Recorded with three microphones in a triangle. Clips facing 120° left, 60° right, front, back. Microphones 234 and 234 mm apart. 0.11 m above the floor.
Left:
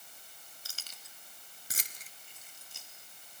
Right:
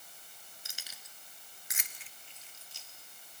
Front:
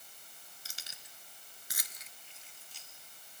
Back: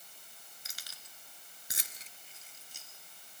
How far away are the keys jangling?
About 1.3 m.